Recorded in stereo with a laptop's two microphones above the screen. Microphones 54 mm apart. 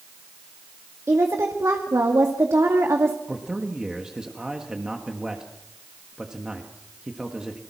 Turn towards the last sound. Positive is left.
turn(degrees=-10)  # may be behind; listen again after turning